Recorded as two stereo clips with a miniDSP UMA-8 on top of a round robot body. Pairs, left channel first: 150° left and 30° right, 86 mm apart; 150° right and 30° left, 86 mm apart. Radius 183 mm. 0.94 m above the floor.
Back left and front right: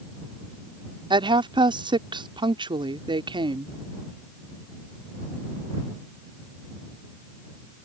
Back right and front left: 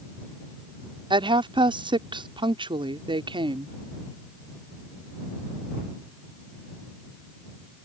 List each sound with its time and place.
1.1 s a woman speaking: straight ahead